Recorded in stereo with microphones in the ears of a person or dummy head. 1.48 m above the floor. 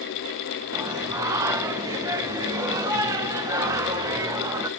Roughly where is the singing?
Centre.